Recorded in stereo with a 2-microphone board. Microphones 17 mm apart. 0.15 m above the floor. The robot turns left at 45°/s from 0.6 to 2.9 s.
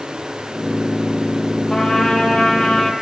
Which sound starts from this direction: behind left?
A trumpet, at 1.7 s.